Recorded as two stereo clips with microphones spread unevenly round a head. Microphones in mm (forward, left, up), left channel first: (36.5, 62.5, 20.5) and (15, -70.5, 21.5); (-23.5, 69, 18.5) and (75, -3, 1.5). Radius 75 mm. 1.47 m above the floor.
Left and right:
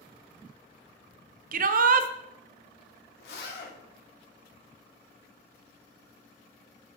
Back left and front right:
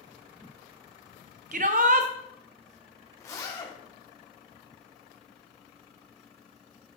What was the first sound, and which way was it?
A shout, 75° right.